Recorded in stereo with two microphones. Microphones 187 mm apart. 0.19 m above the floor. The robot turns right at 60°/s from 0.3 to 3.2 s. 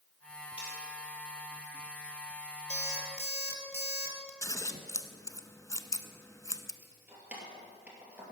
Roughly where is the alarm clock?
Right.